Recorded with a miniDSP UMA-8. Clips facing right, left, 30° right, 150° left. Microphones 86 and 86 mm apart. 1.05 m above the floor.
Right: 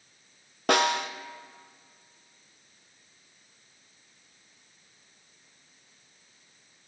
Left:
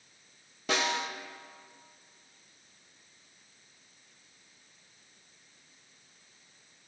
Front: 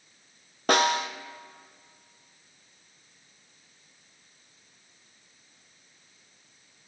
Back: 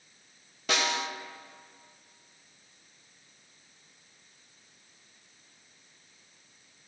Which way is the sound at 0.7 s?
70° right.